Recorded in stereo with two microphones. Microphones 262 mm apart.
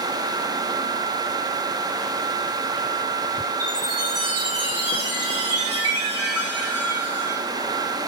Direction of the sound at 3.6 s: 65° right (ahead or behind).